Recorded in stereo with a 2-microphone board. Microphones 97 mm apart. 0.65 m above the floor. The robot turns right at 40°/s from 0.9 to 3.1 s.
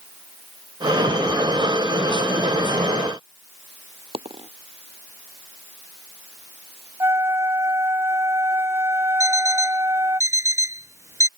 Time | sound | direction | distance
4.1 | a dropped coin | 70° right (ahead or behind) | ?
7.0 | a flute | 30° right (ahead or behind) | ?
9.2 | an alarm clock | 30° right (ahead or behind) | ?